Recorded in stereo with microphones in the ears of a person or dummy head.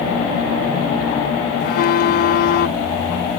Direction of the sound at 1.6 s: 50° left (ahead or behind).